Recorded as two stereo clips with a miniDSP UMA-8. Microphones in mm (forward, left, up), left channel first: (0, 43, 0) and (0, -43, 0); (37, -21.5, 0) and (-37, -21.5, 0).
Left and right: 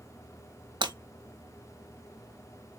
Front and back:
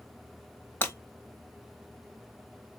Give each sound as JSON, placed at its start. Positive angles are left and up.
{"t": 0.8, "sound": "breaking glass", "azimuth_deg": -65, "distance_m": 1.2}